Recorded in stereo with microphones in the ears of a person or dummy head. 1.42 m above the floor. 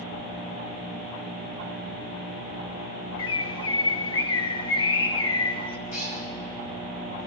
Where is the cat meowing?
65° left (ahead or behind), 5.5 m.